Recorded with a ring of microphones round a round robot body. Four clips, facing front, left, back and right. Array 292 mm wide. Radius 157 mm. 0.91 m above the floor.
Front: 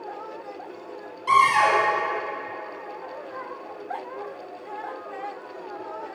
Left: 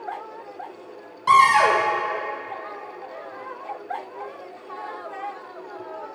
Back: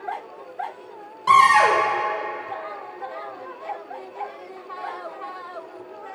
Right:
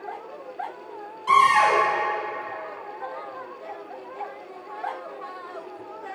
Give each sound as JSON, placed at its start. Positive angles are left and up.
{"t": 1.3, "sound": "a cupboard door", "azimuth_deg": 130, "distance_m": 2.5}